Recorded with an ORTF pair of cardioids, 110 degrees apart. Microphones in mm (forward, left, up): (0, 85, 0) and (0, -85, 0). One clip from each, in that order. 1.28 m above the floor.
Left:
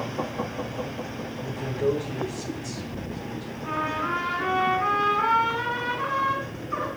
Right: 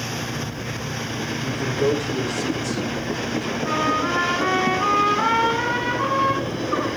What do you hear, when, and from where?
1.4 s a man speaking: 50° right, 5 m
3.6 s a trumpet: 25° right, 8.5 m